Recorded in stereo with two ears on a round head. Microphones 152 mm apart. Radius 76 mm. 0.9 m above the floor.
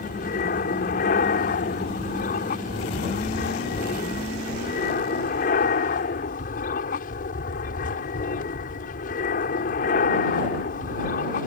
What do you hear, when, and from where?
0.0 s an aircraft: 50° left (ahead or behind)